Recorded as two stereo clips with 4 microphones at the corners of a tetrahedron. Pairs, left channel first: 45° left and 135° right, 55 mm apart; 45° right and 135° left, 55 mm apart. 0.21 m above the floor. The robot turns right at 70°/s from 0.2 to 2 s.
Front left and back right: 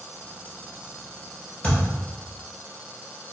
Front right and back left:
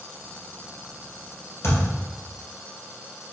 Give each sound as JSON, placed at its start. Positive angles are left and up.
{"t": 1.6, "sound": "a thud", "azimuth_deg": -20, "distance_m": 1.7}